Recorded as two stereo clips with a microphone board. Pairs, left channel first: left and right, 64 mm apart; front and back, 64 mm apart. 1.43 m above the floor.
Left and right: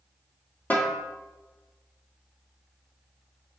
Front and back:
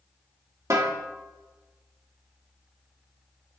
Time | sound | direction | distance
0.7 | a snare drum | 155° left | 1.8 m